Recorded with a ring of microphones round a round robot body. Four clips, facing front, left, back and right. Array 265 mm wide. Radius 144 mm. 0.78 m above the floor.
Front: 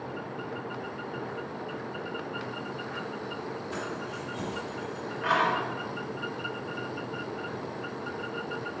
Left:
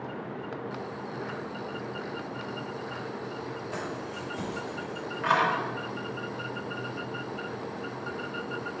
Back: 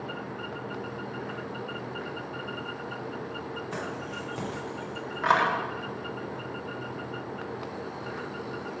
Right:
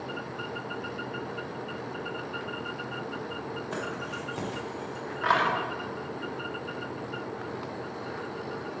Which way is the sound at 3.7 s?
115° right.